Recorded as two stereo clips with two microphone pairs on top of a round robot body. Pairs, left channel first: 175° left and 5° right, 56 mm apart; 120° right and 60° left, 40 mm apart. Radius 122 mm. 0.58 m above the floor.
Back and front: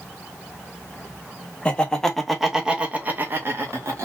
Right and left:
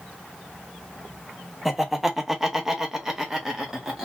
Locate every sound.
1.6 s laughter: 140° left, 1.2 m; by 4.1 s 15° right, 1.2 m